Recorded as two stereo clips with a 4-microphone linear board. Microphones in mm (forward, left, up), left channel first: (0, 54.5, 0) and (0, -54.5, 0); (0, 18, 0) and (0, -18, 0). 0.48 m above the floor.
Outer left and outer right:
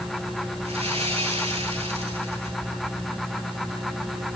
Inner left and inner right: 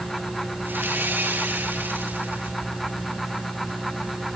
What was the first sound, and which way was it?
Sawing, 80° right.